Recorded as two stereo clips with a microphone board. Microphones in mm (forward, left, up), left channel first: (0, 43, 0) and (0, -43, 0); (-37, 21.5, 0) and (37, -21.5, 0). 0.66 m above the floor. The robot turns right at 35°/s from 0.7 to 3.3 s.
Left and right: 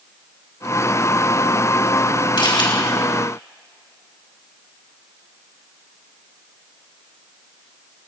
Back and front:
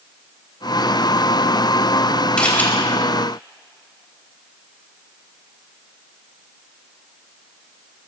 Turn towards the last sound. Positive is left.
turn(degrees=105)